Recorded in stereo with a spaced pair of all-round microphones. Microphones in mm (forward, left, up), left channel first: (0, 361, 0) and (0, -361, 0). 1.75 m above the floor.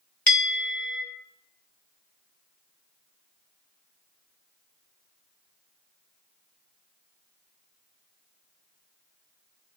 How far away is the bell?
About 1.8 m.